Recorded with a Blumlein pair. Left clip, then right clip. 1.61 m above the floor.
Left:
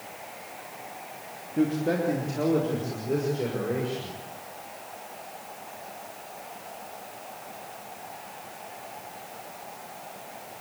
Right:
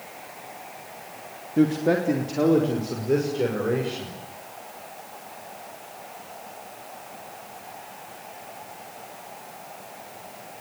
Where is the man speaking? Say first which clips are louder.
Right 4 dB; 15° right, 3 m; by 4.1 s 20° right, 7 m.